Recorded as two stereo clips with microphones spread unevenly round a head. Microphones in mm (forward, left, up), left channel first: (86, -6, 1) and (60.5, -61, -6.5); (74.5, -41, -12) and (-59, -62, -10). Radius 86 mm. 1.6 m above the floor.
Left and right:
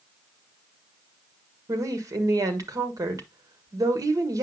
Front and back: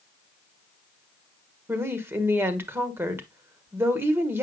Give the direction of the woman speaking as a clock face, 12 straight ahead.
3 o'clock.